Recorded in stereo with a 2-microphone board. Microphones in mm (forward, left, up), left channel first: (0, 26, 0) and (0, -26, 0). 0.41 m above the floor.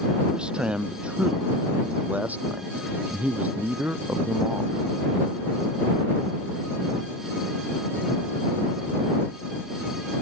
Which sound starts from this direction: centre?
A man speaking, at 0.3 s.